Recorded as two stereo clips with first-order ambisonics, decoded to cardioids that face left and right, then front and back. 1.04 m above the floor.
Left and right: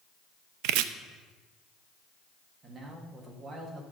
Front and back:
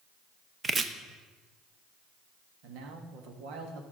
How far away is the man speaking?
About 1.6 m.